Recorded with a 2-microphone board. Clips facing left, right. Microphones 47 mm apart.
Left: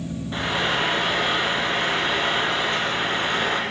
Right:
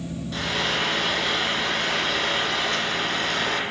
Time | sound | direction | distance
0.3 | frying | 25° left (ahead or behind) | 8 m